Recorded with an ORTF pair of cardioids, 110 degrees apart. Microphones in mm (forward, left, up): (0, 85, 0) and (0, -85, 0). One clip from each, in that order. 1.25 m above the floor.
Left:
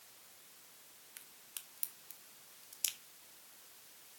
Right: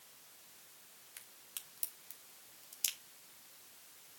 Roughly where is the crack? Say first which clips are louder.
Right 1 dB; ahead.